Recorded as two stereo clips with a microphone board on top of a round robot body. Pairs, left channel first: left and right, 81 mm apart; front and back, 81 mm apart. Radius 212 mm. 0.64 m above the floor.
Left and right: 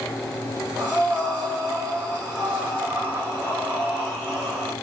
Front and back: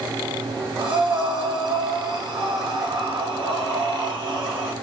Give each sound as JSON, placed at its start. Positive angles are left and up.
{"t": 0.8, "sound": "breathing", "azimuth_deg": -175, "distance_m": 1.3}